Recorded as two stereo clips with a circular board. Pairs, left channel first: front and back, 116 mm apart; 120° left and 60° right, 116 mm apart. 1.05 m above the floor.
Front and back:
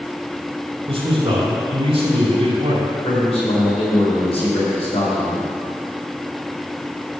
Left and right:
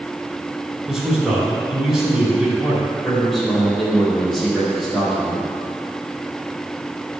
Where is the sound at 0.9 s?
145° right, 2.5 m.